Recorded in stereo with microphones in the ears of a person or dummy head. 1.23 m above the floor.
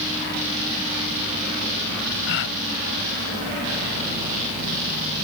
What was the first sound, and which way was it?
A gasp, 70° left (ahead or behind).